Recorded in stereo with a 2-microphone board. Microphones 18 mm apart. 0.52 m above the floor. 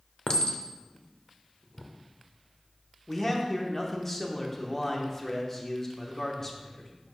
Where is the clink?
55° left (ahead or behind), 0.7 m.